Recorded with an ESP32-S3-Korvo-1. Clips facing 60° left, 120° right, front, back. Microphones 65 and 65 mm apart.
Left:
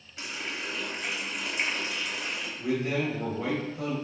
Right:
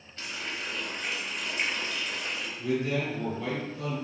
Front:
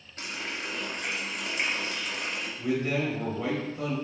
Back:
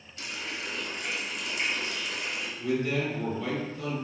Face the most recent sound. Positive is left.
turn(degrees=20)